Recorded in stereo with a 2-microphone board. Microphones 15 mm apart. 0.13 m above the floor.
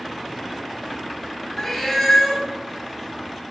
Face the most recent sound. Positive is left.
turn(degrees=20)  # may be behind; listen again after turning